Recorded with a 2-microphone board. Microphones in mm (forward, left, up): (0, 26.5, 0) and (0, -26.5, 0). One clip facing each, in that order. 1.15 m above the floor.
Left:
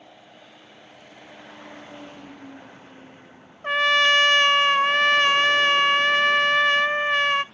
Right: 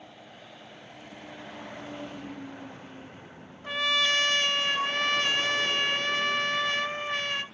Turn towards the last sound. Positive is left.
turn(degrees=45)  # may be behind; listen again after turning